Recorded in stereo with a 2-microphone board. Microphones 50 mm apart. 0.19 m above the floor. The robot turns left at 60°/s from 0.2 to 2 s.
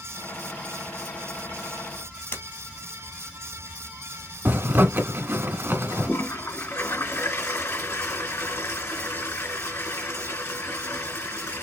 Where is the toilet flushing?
60° left (ahead or behind), 3 m.